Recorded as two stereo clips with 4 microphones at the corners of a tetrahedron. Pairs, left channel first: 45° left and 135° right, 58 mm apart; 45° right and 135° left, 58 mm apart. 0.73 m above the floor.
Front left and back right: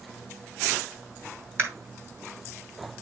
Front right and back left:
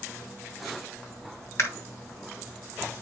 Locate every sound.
1.6 s a camera shutter: 90° right, 2 m